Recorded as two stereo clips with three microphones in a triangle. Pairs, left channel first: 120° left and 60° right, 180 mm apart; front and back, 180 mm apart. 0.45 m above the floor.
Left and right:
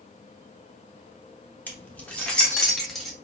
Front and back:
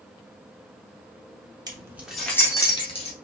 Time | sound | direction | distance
1.7 | keys jangling | 175° right | 0.8 m